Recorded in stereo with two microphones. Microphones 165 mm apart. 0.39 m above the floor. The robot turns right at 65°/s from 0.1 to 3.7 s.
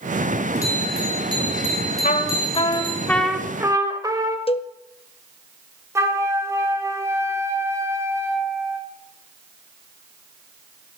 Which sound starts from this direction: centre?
A flute, at 6.0 s.